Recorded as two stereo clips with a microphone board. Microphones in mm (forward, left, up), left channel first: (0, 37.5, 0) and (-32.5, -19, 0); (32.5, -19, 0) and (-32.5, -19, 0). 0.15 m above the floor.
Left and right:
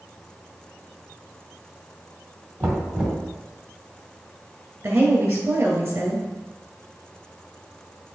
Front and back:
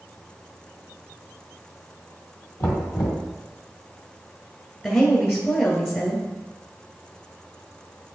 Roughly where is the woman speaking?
Ahead right.